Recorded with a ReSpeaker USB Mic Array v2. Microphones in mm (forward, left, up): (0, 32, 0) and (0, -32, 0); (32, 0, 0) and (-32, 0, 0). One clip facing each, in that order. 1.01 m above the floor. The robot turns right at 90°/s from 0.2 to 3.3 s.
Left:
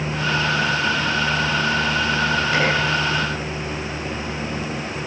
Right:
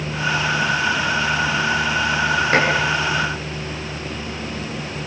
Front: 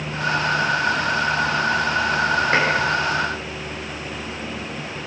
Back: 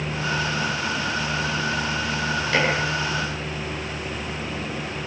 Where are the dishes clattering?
50° right, 9 m; by 2.7 s 35° right, 9 m.